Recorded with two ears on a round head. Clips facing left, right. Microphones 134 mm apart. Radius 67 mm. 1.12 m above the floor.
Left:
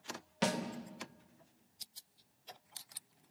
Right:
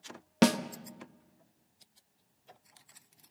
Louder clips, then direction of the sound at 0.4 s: Right 10 dB; 65° right (ahead or behind).